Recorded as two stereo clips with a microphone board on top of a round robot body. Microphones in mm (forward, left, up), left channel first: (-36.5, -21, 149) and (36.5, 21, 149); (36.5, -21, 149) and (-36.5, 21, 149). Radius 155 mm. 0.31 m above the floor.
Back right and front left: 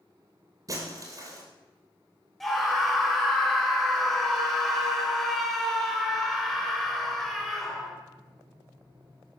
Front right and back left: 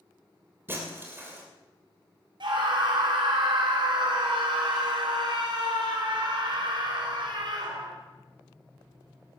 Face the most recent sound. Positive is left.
turn(degrees=125)